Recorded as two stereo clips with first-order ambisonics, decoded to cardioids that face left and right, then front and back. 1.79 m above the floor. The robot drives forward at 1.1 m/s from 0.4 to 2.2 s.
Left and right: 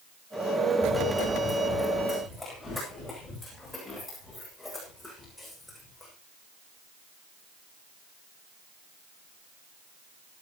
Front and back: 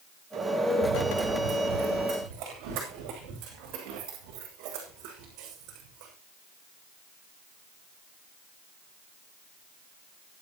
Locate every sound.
0.8 s running footsteps: 165° left, 7.5 m; by 6.1 s 170° left, 6.5 m